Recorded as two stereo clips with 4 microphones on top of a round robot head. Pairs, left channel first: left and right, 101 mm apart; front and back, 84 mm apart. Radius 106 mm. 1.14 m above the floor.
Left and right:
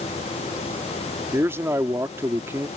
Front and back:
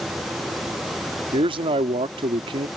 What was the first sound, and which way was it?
A man speaking, 160° right.